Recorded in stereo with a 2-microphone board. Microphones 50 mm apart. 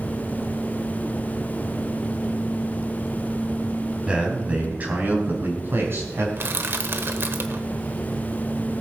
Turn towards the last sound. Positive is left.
turn(degrees=-50)  # may be behind; listen again after turning